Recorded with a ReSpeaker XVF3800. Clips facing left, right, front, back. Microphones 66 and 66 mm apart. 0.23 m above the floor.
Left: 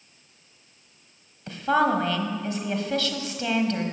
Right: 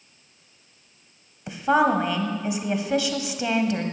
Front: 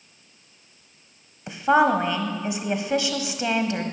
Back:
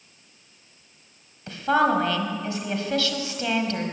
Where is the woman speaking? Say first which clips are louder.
Right 2 dB, front 2 dB; 40° right, 1.2 m.